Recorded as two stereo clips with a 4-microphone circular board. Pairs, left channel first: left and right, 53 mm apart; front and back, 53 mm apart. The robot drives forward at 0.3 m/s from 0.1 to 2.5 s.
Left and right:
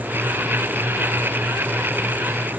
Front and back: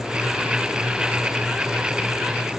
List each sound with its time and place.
Only background noise.